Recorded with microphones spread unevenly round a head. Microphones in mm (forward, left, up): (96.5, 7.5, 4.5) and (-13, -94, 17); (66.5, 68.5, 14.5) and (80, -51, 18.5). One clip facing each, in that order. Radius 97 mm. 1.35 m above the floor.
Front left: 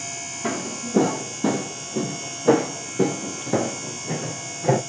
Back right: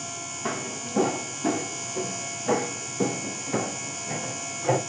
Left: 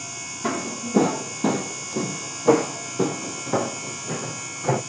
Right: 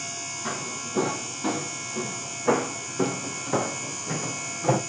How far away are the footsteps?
About 2 m.